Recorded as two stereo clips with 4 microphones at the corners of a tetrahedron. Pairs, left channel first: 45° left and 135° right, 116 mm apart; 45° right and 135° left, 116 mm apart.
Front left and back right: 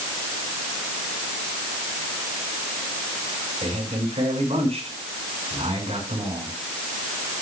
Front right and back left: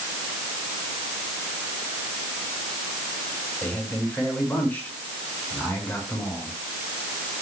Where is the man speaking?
120° right, 7 m.